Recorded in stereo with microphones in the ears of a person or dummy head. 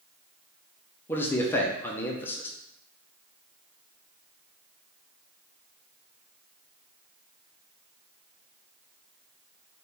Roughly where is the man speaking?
Centre.